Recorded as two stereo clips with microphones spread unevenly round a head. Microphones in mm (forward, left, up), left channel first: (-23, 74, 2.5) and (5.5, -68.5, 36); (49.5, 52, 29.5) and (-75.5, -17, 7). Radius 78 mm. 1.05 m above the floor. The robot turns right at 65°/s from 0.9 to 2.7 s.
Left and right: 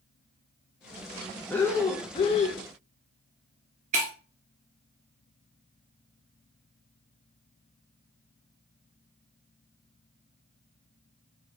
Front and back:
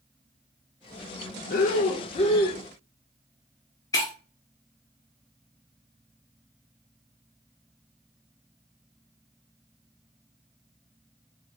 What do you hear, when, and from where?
1.5 s breathing: 30° left, 0.6 m; by 2.6 s 100° left, 0.6 m
3.9 s breaking glass: 40° right, 0.8 m